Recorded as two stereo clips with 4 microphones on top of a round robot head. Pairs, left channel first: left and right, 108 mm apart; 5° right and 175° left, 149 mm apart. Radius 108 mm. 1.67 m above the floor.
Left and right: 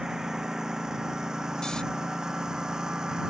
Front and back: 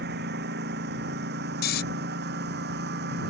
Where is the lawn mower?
175° right.